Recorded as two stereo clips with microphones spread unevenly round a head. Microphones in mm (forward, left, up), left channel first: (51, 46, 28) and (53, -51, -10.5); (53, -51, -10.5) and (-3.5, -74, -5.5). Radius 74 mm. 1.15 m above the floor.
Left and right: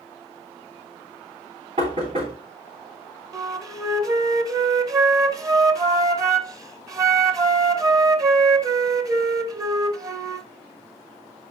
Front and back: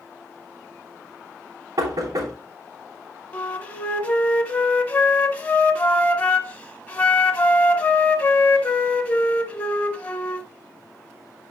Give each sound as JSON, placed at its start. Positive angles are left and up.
{"t": 1.8, "sound": "knocking", "azimuth_deg": -135, "distance_m": 3.0}
{"t": 3.3, "sound": "a flute", "azimuth_deg": -25, "distance_m": 1.0}